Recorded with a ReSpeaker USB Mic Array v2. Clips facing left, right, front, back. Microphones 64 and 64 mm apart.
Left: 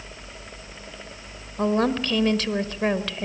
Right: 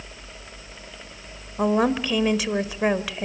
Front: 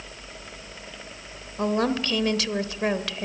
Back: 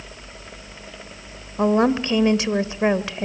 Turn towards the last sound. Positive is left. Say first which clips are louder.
# right 1 dB, back 6 dB
turn(degrees=-160)